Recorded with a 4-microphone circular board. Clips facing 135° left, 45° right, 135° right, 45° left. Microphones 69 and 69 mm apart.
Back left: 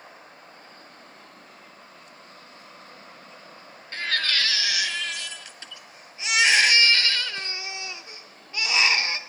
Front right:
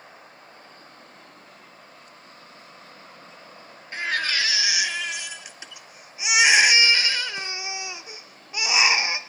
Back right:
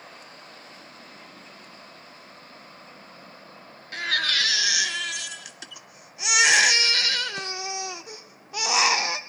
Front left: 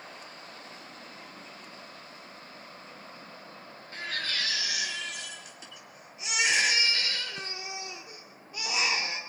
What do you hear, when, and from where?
3.9 s a baby crying: 120° right, 0.7 m